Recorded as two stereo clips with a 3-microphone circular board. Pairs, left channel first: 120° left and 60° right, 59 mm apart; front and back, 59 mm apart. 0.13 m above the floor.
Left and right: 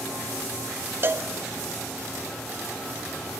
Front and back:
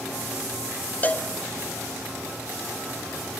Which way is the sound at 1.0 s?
45° right.